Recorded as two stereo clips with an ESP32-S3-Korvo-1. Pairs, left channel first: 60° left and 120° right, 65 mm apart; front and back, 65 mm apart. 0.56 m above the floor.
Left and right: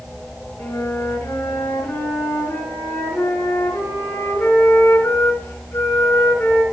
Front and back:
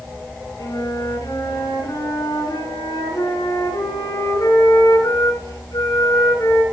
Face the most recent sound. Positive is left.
turn(degrees=15)